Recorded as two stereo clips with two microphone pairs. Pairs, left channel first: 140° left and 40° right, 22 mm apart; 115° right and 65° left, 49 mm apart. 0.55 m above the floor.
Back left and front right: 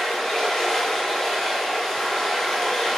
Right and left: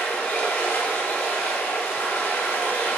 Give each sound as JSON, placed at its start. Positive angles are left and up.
{"t": 0.0, "sound": "running water", "azimuth_deg": -140, "distance_m": 5.0}